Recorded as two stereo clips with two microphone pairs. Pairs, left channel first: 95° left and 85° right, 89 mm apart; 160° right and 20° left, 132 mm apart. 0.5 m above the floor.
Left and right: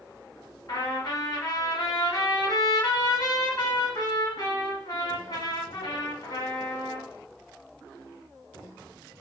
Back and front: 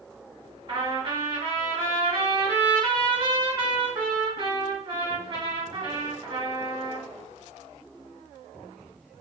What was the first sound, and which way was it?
A trumpet, 70° left.